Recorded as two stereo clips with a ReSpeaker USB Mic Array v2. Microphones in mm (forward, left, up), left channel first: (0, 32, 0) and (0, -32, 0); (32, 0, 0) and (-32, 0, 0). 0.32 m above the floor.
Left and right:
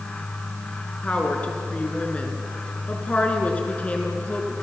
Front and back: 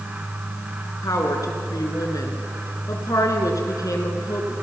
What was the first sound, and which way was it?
A woman speaking, 25° left.